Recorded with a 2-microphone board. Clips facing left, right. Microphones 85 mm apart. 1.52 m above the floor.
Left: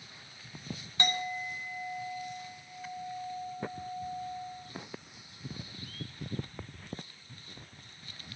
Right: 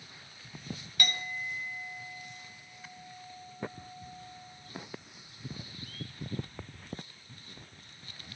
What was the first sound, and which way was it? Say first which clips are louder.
A clink: left 4 dB; 25° left (ahead or behind).